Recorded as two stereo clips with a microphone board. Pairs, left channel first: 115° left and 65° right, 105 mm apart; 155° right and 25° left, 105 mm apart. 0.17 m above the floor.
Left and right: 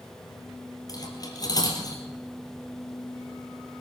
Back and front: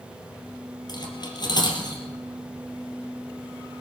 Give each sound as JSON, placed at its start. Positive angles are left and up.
{"t": 0.9, "sound": "cutlery clinking", "azimuth_deg": 160, "distance_m": 3.0}